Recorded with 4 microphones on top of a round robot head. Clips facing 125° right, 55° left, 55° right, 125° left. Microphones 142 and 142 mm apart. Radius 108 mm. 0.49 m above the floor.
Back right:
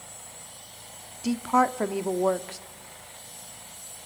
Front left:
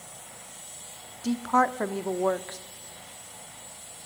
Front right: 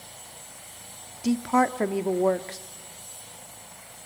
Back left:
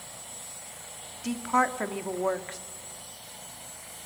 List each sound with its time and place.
1.2 s a woman speaking: 50° right, 1.2 m